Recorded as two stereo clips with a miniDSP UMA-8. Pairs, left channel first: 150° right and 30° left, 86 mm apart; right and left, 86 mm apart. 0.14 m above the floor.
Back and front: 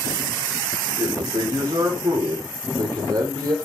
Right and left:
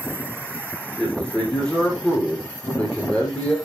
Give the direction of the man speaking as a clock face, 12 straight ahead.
12 o'clock.